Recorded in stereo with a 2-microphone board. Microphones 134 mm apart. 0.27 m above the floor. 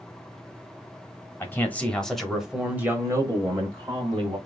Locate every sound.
1.4 s a man speaking: 15° left (ahead or behind), 1.2 m; by 4.4 s 35° right (ahead or behind), 1.6 m